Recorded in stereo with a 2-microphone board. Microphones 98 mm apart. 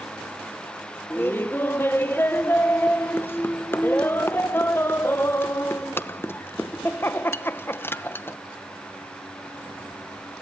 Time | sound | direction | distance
1.1 | laughter | 20° left (ahead or behind) | 1.0 m